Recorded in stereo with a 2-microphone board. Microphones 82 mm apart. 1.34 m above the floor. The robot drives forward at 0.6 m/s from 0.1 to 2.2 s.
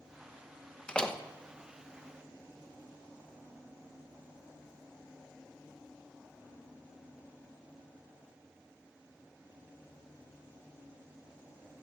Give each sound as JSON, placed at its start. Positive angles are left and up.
{"t": 0.9, "sound": "a door slam", "side_deg": 15, "distance_m": 1.0}